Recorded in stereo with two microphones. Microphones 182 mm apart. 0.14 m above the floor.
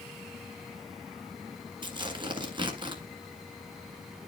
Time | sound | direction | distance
1.8 | tearing paper | 25° right (ahead or behind) | 1.7 m